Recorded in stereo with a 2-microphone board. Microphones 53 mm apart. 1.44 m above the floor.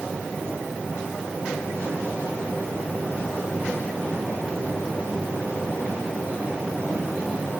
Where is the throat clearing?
No throat clearing in this recording.